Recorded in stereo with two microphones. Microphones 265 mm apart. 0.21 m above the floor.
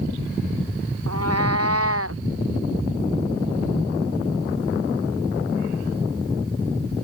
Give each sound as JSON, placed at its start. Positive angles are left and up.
{"t": 1.1, "sound": "a cat meowing", "side_deg": -70}